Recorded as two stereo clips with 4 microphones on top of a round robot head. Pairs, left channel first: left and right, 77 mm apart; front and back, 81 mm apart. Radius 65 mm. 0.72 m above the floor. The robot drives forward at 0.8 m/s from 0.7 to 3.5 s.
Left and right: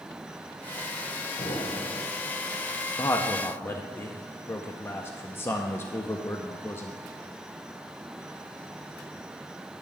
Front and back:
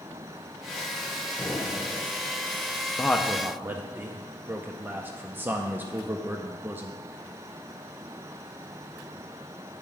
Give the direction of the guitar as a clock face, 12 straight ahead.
I don't hear a guitar.